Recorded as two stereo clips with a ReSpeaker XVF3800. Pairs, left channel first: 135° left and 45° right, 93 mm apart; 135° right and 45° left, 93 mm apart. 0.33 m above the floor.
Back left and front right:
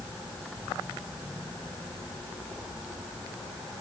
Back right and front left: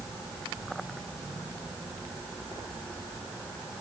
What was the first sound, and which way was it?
Only background noise.